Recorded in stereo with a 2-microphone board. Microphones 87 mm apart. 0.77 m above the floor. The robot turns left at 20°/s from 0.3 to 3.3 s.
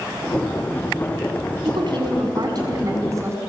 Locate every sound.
1.6 s a woman speaking: 115° right, 5.5 m; by 3.4 s 145° right, 5.5 m